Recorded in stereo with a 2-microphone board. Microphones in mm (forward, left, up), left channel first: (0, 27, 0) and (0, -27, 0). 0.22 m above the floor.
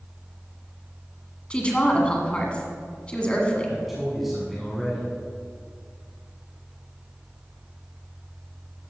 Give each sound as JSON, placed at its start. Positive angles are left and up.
{"t": 1.5, "sound": "a woman speaking", "side_deg": 20, "distance_m": 1.8}
{"t": 3.7, "sound": "a man speaking", "side_deg": -5, "distance_m": 1.8}